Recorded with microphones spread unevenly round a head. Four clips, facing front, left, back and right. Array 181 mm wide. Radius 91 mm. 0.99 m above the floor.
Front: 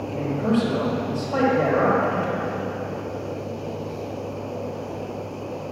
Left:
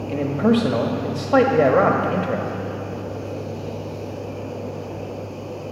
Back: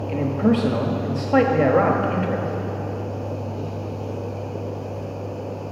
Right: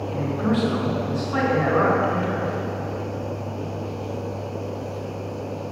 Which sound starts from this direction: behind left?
A man speaking, at 0.1 s.